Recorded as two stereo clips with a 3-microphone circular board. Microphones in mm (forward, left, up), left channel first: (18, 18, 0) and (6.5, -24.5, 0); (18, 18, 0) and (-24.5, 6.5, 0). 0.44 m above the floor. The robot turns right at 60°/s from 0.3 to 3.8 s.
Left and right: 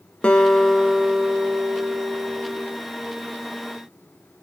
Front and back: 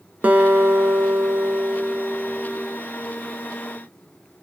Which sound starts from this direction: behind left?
A guitar, at 0.2 s.